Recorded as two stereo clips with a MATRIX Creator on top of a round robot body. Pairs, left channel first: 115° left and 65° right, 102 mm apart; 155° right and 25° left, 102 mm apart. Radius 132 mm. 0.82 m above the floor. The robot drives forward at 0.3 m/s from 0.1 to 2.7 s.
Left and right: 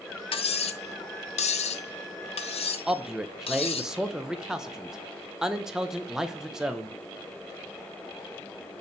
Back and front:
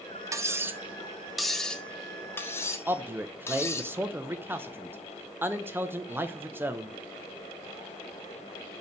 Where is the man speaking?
5° left, 0.8 m.